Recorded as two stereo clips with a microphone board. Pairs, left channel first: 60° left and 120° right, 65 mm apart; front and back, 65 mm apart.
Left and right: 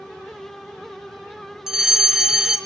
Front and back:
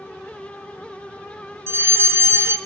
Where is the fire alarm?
165° left, 3 m.